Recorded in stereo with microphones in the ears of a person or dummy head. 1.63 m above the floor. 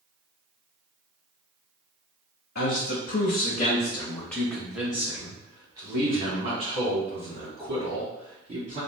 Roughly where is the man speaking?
Left.